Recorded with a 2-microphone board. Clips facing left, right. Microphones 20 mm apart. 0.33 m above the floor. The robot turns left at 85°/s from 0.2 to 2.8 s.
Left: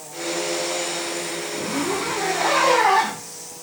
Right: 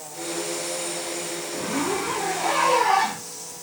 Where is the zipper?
160° right, 9 m; by 3.6 s 95° left, 9 m.